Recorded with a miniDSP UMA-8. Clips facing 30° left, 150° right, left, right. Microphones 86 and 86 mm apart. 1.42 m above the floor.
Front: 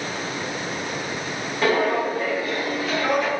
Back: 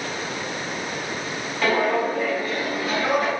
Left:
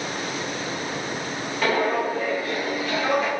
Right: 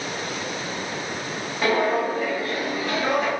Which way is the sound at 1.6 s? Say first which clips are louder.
Even, right 1 dB; 30° right.